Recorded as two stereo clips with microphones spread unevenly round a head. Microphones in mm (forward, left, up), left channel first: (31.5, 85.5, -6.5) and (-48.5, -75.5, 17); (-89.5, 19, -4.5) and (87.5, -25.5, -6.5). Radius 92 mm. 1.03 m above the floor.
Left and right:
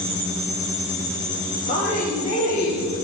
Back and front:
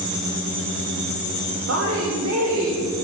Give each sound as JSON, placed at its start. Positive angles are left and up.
{"t": 1.7, "sound": "a woman speaking", "azimuth_deg": 10, "distance_m": 3.0}